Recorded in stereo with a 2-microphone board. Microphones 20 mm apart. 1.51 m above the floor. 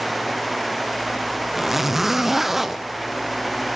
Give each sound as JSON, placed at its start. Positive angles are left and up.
{"t": 1.5, "sound": "a zipper", "side_deg": -15, "distance_m": 0.7}